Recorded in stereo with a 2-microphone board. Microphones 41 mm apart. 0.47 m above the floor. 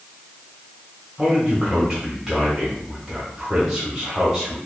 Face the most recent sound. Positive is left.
turn(degrees=-10)  # may be behind; listen again after turning